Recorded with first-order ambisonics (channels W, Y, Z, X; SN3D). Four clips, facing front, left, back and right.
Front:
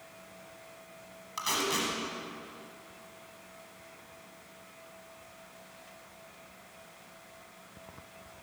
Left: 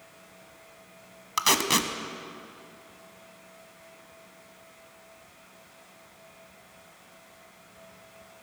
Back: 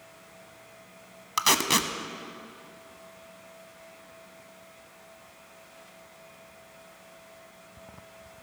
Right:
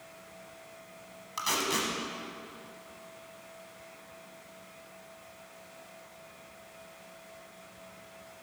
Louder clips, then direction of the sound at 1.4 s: Left 6 dB, back 7 dB; 135° left.